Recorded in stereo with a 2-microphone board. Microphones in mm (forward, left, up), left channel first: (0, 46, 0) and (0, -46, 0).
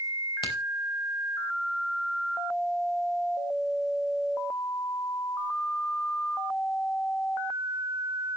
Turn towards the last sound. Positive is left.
turn(degrees=60)  # may be behind; listen again after turning